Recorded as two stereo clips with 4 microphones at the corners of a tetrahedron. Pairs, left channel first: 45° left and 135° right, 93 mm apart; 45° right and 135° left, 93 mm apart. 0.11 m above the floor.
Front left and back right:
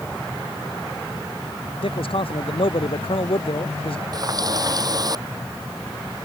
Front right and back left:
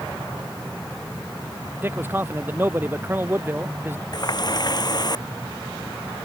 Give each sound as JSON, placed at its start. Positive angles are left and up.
{"t": 1.8, "sound": "a man speaking", "azimuth_deg": 65}
{"t": 4.1, "sound": "a running tap", "azimuth_deg": -90}